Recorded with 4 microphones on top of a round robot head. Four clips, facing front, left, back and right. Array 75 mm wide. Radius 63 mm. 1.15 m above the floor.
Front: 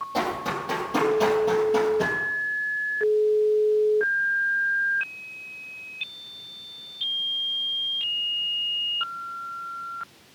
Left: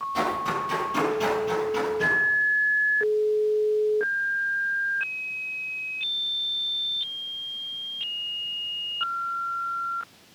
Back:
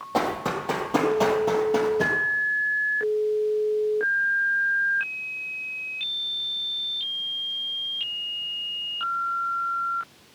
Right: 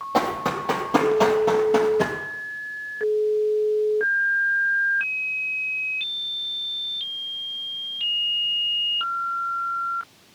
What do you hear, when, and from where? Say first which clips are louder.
0.1 s running footsteps: right 4 dB, back 3 dB; 115° right, 2.5 m; by 2.2 s 100° right, 1.7 m